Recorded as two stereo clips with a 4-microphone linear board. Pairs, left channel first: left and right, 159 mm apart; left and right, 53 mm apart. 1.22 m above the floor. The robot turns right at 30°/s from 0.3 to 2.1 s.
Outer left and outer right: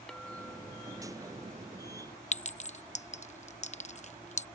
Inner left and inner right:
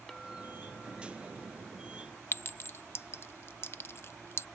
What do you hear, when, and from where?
0.1 s a clink: 5° left; by 2.2 s 60° left
2.3 s a clink: 50° left (ahead or behind)